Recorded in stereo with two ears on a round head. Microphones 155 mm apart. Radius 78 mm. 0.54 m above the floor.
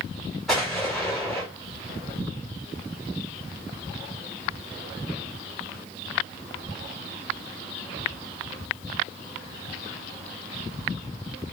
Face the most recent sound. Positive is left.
turn(degrees=0)  # may be behind; listen again after turning